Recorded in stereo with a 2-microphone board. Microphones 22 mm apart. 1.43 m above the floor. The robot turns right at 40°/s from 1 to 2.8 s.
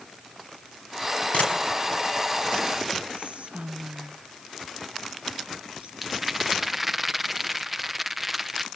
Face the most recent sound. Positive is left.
turn(degrees=-5)  # may be behind; listen again after turning